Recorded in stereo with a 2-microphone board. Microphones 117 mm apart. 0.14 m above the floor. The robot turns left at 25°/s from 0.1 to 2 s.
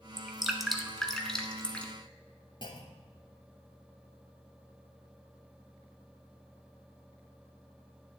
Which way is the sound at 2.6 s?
45° left (ahead or behind).